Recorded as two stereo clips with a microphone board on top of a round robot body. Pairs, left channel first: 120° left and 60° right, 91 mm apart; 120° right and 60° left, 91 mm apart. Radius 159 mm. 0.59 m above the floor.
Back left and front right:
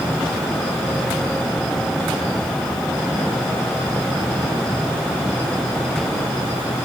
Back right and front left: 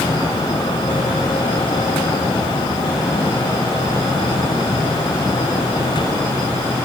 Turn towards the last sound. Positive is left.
No sound to turn to.